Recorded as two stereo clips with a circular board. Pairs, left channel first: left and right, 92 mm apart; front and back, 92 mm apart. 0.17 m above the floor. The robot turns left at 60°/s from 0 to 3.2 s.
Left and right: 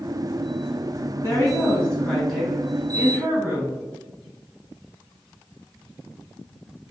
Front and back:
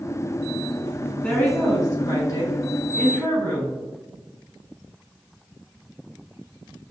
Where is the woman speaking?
65° left, 1.4 m; by 3.8 s 55° right, 1.4 m.